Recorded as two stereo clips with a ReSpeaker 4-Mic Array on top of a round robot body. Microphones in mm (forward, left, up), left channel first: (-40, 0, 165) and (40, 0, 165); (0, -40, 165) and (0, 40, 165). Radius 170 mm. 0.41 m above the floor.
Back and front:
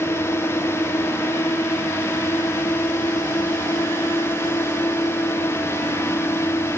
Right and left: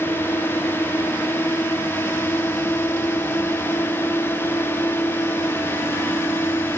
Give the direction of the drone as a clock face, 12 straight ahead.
5 o'clock.